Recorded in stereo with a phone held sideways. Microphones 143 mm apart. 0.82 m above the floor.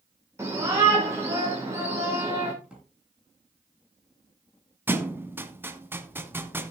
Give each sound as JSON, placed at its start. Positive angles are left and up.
{"t": 0.4, "sound": "a shout", "side_deg": -20, "distance_m": 3.0}
{"t": 2.6, "sound": "a drawer", "side_deg": -5, "distance_m": 7.0}
{"t": 4.9, "sound": "a thud", "side_deg": -15, "distance_m": 1.1}